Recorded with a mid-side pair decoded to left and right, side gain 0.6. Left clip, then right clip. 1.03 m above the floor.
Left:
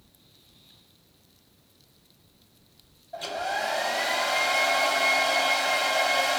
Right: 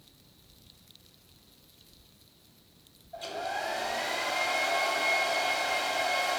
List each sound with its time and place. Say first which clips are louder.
3.1 s a hair dryer: left 5 dB; 40° left, 1.3 m